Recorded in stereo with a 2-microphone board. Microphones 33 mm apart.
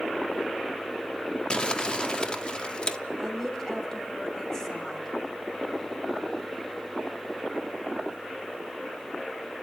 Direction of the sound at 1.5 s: 30° left (ahead or behind).